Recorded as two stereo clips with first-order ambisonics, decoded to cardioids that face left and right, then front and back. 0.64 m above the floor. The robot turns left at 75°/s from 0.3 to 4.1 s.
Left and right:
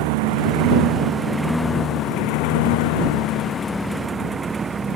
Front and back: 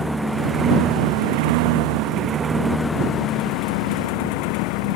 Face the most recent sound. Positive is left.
turn(degrees=-15)